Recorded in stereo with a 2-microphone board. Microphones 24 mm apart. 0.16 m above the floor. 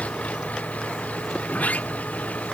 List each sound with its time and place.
0.0 s an engine running: 75° left (ahead or behind)
1.5 s a sliding door: 90° left